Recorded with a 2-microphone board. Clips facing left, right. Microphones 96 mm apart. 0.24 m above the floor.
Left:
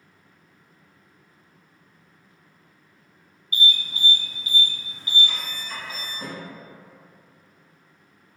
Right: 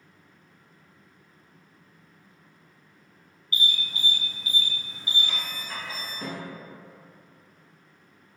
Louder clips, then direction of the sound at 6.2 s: Right 1 dB; 10° left (ahead or behind).